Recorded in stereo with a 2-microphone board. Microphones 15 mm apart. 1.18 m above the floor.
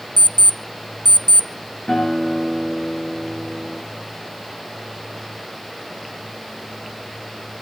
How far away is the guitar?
About 8.5 m.